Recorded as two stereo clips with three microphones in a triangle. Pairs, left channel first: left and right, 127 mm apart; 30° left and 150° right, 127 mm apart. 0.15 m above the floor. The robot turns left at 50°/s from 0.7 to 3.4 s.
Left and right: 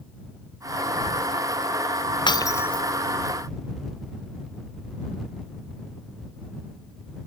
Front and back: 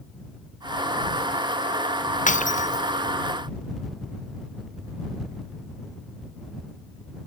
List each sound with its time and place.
2.3 s breaking glass: 35° left; by 2.9 s 5° left